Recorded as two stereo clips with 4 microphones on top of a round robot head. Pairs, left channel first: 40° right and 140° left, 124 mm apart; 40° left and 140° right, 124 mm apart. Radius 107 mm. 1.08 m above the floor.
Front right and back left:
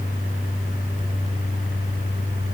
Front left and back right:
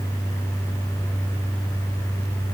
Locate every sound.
Only background noise.